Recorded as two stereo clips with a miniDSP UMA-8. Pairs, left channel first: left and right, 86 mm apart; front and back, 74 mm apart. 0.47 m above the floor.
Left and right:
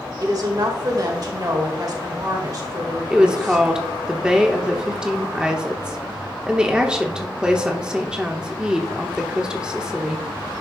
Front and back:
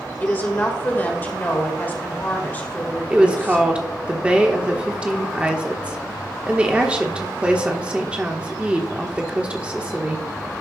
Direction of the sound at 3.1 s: 150° right.